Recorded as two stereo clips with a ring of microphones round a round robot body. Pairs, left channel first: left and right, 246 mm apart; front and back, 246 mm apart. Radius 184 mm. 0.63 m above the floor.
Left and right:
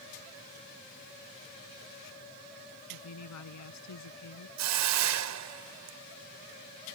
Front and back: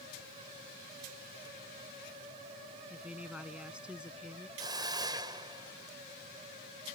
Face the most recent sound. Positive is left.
turn(degrees=-105)